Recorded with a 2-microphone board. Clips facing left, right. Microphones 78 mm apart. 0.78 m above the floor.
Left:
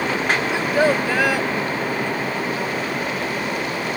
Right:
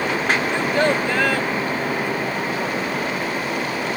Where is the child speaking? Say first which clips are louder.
Left 3 dB; 5° left (ahead or behind).